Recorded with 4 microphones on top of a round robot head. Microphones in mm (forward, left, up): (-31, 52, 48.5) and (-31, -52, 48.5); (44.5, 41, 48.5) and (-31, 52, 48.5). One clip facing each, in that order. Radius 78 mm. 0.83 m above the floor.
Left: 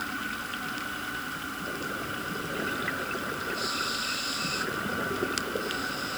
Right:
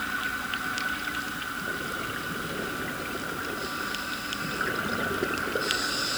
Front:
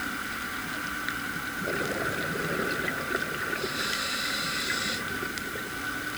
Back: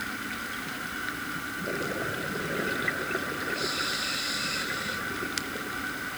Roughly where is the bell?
I don't hear a bell.